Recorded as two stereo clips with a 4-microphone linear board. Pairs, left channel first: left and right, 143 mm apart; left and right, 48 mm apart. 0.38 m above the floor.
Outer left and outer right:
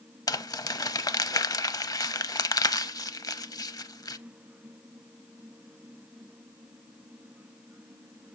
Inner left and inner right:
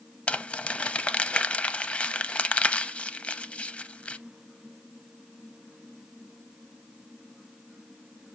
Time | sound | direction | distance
0.3 | crumpling | 25° left (ahead or behind) | 0.5 m